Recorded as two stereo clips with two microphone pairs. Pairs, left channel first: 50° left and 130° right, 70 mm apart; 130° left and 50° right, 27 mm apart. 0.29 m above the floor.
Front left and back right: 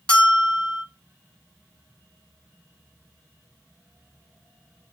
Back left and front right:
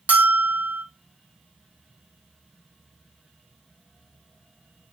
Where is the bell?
25° right, 0.6 m.